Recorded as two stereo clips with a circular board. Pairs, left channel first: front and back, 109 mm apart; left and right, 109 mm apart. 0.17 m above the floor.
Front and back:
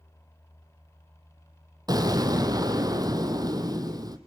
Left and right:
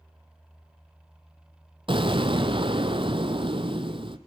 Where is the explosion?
125° right, 1.6 m.